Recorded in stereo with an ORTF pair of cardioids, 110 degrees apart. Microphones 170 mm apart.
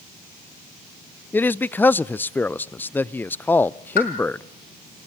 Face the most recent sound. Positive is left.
turn(degrees=60)